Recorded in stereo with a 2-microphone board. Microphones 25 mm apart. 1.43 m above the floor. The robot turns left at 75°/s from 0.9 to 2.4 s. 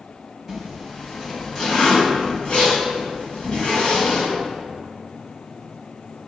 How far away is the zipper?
About 1.8 m.